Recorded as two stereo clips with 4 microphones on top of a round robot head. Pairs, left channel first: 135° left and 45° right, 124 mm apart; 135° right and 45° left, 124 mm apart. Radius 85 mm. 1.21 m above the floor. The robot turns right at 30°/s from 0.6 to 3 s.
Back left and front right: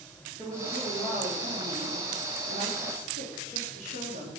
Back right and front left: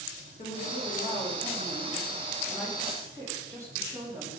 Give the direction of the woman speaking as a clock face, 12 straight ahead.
3 o'clock.